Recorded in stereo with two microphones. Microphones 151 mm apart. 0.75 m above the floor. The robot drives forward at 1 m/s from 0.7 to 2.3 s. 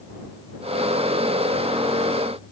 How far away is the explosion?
No explosion in this recording.